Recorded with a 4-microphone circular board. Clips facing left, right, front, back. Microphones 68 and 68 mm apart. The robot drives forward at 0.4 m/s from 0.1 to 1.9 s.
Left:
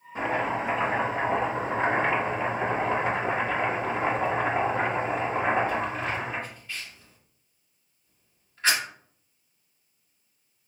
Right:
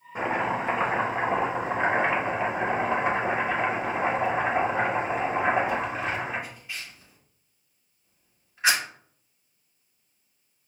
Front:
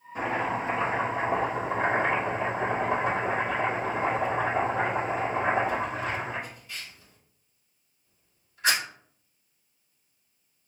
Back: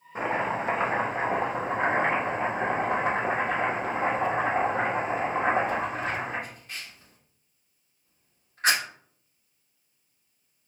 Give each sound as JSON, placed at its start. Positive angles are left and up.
{"t": 0.1, "sound": "chopping", "azimuth_deg": -145, "distance_m": 1.1}